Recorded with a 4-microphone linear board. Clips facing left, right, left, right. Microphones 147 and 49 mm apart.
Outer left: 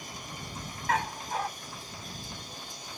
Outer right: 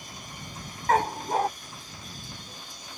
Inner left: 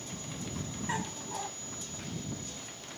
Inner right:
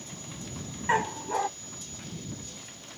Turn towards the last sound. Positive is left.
turn(degrees=-45)  # may be behind; listen again after turning